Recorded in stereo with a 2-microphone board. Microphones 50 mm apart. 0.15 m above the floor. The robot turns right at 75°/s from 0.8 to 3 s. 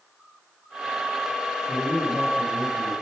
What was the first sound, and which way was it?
A man speaking, 25° right (ahead or behind).